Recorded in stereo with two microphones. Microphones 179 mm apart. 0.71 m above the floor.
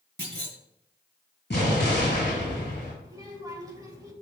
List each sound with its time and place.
0.2 s a clunk: 70° right (ahead or behind), 2 m
1.5 s an explosion: 70° left (ahead or behind), 4 m
3.0 s a child speaking: 20° right (ahead or behind), 2.5 m